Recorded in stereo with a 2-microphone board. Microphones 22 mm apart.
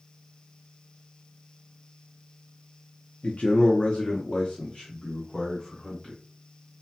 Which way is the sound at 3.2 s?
75° left (ahead or behind).